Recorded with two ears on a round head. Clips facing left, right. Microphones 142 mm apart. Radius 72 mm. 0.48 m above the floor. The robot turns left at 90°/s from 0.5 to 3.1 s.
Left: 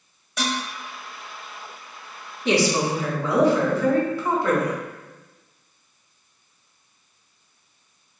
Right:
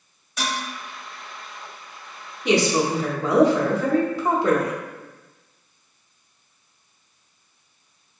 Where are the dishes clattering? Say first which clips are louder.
Left 2 dB; 75° left (ahead or behind), 1.4 m; by 0.6 s 70° left (ahead or behind), 1.4 m.